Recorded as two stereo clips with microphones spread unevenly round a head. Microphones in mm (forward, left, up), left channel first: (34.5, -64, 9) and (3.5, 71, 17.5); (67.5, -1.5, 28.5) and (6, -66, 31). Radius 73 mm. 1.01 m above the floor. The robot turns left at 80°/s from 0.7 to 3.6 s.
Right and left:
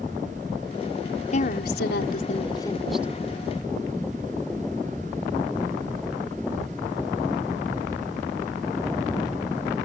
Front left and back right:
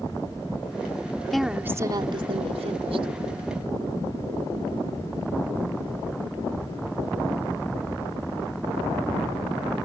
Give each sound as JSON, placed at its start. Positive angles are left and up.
{"t": 1.3, "sound": "a woman speaking", "azimuth_deg": -40}